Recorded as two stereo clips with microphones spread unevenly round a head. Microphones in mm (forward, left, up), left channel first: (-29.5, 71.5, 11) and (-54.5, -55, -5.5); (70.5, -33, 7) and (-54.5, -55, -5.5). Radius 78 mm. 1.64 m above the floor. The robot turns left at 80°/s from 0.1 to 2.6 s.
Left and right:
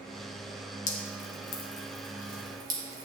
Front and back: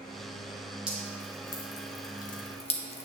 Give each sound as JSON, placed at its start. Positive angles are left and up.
{"t": 0.9, "sound": "dripping", "azimuth_deg": 105, "distance_m": 1.1}